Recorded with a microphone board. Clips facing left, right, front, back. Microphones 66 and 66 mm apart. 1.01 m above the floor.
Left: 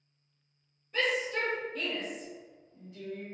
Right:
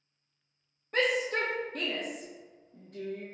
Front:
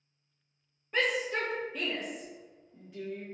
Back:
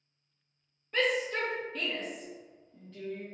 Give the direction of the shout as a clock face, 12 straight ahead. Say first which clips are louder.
Right 2 dB, even; 3 o'clock.